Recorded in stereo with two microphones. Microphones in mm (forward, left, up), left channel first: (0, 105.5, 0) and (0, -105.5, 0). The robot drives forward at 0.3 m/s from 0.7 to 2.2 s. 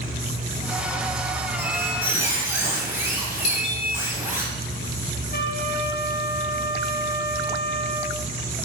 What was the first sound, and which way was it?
A squeak, 10° right (ahead or behind).